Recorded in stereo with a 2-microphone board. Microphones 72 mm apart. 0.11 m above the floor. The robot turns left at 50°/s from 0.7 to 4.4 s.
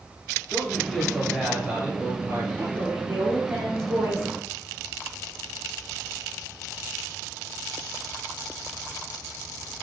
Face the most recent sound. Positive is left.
turn(degrees=-155)